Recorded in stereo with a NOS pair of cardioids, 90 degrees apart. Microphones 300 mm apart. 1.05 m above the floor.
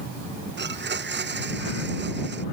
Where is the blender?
35° right.